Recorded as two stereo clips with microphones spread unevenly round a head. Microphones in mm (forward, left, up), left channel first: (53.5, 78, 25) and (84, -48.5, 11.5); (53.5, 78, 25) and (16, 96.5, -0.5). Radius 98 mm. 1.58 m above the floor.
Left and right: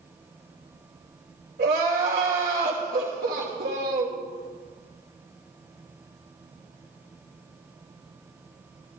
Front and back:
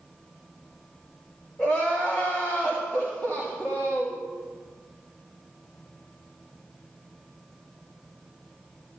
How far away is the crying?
About 3 m.